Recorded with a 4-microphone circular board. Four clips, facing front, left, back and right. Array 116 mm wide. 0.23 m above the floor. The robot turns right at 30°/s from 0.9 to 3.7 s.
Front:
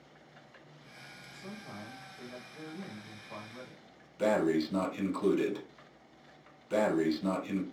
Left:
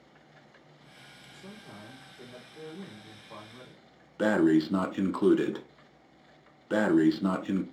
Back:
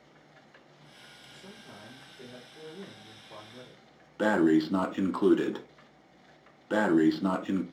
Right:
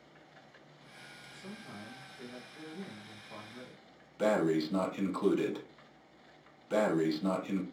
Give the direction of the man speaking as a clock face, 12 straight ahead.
12 o'clock.